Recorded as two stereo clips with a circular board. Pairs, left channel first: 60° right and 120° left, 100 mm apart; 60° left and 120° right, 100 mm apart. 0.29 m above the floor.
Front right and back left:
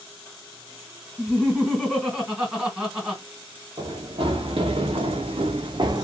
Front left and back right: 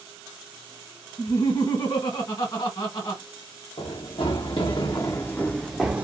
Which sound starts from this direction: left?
Running footsteps, at 3.8 s.